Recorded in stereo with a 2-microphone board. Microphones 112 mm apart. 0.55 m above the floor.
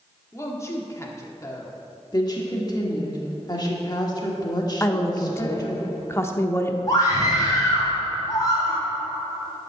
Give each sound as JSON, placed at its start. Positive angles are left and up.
{"t": 0.3, "sound": "a woman speaking", "side_deg": 25, "distance_m": 1.2}
{"t": 2.1, "sound": "a woman speaking", "side_deg": 35, "distance_m": 1.5}
{"t": 4.8, "sound": "a woman speaking", "side_deg": 25, "distance_m": 0.8}
{"t": 6.9, "sound": "a scream", "side_deg": 35, "distance_m": 3.0}